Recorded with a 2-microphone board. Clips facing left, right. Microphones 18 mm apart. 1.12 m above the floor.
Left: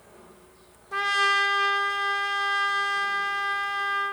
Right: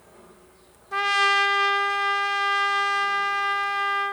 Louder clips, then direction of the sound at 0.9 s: Right 2 dB; 15° right (ahead or behind).